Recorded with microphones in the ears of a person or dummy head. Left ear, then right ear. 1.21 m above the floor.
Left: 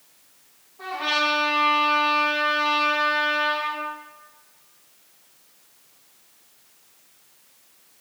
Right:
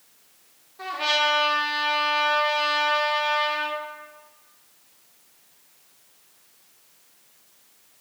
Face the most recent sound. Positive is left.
turn(degrees=-60)  # may be behind; listen again after turning